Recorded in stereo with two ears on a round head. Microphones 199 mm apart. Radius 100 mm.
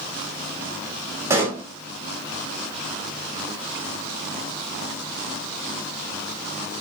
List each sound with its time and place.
1.3 s a pop: 10° right (ahead or behind), 1.2 m